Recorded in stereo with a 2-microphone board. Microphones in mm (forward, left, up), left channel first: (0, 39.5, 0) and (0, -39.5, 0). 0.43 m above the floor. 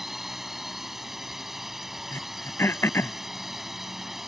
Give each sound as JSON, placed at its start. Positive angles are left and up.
{"t": 0.0, "sound": "a drone", "side_deg": -5}
{"t": 2.1, "sound": "throat clearing", "side_deg": 30}